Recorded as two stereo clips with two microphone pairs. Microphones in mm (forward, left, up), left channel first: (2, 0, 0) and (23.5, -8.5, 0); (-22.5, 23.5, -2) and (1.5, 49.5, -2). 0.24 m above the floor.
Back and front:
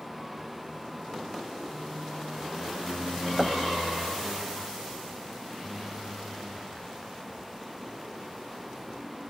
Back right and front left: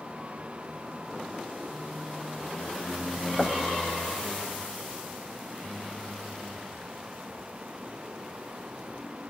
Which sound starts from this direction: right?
Knocking, at 3.4 s.